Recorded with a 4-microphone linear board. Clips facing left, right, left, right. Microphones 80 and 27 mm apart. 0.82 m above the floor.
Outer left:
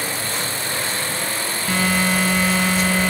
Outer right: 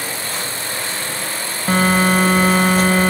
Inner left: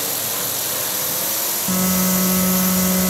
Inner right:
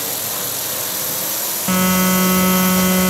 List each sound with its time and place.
1.7 s a phone buzzing: 45° right (ahead or behind), 1.4 m